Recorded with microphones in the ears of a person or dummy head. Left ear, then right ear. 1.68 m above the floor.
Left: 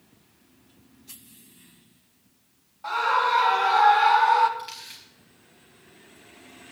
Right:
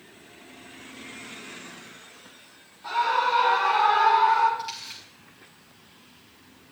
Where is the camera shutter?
20° left (ahead or behind), 4.5 m.